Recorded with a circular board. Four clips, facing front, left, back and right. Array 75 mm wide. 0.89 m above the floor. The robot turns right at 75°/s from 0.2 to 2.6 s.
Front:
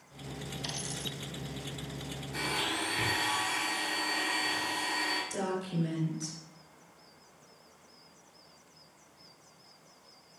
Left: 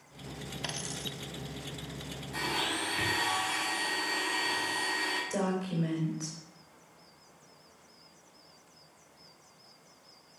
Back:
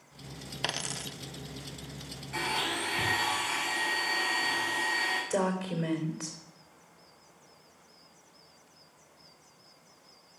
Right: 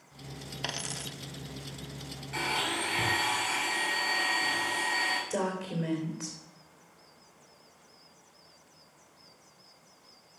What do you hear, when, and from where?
0.6 s a dropped coin: 170° right, 0.6 m; by 1.1 s 130° right, 0.6 m
2.3 s a blender: 125° right, 5.5 m; by 5.2 s 105° right, 5.5 m
5.3 s a woman speaking: 155° right, 3 m